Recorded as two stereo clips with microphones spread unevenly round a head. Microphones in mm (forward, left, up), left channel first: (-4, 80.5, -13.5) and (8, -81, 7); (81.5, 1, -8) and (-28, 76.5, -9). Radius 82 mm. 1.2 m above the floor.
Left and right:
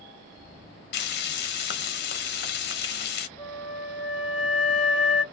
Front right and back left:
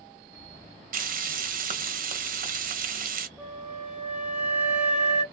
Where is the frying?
125° left, 0.8 m.